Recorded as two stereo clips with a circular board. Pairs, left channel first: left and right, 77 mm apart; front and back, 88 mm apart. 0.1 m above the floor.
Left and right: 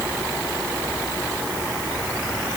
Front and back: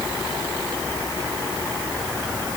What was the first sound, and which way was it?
Only background noise.